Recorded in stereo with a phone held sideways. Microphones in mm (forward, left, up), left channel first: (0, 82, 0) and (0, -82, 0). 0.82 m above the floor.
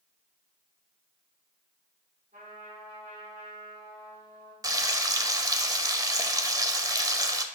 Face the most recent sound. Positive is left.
turn(degrees=-20)  # may be behind; listen again after turning